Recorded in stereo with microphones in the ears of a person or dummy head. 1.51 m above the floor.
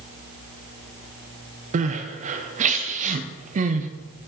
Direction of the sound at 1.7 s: 40° right (ahead or behind).